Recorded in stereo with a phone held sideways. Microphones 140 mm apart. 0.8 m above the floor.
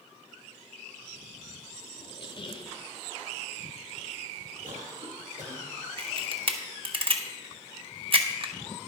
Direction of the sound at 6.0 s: 45° right (ahead or behind).